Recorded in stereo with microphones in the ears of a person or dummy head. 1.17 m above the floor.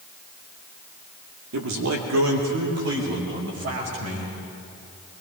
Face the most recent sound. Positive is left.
turn(degrees=-50)  # may be behind; listen again after turning